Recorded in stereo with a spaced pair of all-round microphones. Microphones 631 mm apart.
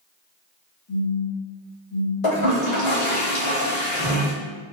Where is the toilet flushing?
55° left (ahead or behind), 1.1 m.